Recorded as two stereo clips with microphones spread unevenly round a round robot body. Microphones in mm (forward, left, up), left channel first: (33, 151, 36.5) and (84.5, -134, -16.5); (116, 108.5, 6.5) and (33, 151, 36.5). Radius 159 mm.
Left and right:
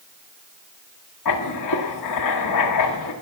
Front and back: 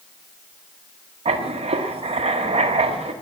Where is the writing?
140° left, 1.4 m.